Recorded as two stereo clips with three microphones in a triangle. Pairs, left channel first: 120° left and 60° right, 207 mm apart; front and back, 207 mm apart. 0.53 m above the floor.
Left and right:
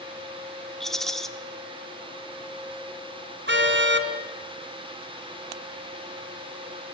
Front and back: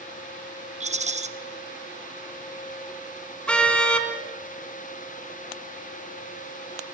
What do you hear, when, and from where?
0.8 s a rattle: 155° right, 1.1 m
3.5 s a car horn: 85° right, 2 m